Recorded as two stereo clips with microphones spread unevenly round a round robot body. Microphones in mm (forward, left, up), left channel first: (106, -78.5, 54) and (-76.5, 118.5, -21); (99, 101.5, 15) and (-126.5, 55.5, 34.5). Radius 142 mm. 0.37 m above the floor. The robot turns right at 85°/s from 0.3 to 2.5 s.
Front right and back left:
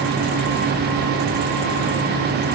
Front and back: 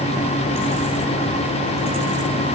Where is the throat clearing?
I don't hear throat clearing.